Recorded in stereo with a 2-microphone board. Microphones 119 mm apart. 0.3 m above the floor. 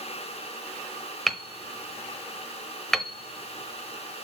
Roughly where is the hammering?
Centre.